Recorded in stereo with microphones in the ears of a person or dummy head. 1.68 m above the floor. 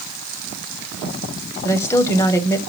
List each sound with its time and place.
1.6 s a woman speaking: 20° left (ahead or behind), 0.7 m